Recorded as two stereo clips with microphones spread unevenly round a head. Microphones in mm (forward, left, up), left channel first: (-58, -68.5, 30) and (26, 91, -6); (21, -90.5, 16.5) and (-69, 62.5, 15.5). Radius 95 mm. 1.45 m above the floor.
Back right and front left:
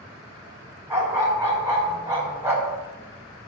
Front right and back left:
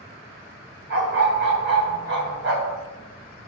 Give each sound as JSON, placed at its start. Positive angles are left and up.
{"t": 0.9, "sound": "a dog barking", "azimuth_deg": 140, "distance_m": 3.5}